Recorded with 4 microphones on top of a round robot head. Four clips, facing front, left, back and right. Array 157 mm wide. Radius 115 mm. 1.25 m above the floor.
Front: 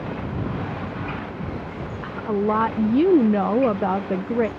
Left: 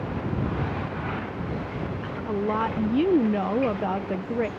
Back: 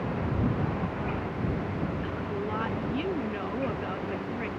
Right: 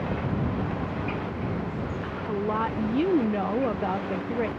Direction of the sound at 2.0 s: 10° left.